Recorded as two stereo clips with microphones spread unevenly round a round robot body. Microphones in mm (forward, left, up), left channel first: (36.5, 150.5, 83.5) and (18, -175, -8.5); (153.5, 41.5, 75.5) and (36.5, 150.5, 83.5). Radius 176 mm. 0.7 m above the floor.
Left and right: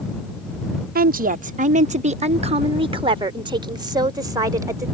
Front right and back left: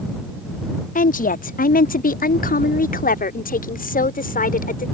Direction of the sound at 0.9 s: 45° right.